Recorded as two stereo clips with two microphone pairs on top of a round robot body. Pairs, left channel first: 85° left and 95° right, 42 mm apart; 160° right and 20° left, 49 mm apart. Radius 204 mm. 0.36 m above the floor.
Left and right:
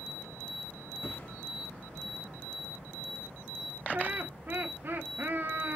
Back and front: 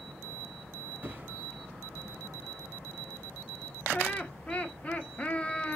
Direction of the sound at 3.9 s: 110° right.